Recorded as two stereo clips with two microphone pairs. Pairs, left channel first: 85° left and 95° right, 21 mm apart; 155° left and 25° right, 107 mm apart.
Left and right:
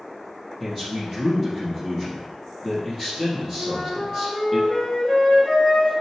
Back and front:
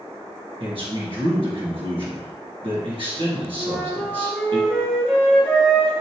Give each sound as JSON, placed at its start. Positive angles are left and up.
{"t": 0.6, "sound": "a man speaking", "azimuth_deg": 0, "distance_m": 3.0}
{"t": 3.6, "sound": "a flute", "azimuth_deg": 70, "distance_m": 3.0}